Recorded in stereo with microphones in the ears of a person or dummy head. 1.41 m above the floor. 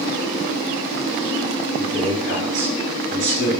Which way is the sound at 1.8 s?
70° right (ahead or behind).